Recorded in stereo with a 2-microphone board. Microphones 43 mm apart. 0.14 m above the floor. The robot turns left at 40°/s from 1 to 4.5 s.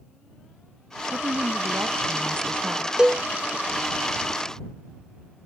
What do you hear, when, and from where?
1.1 s a woman speaking: 75° right; by 2.9 s 150° right
3.0 s a cowbell: 20° right (ahead or behind); by 3.2 s 25° right (ahead or behind)